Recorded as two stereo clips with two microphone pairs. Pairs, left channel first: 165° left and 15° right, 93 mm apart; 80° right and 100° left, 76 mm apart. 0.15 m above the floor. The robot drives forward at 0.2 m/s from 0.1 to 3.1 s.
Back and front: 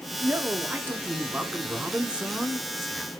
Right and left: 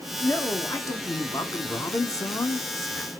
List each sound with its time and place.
0.2 s a man speaking: 65° right, 1.6 m; by 3.1 s 95° right, 1.5 m